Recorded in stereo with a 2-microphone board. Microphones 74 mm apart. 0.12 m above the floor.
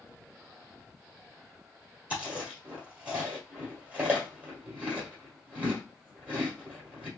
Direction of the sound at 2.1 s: 20° right (ahead or behind).